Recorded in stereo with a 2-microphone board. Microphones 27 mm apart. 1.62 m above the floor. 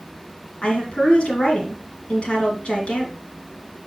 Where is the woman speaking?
50° left (ahead or behind), 3 m.